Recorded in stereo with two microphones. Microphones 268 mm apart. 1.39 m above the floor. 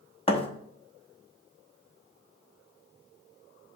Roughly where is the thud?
Left.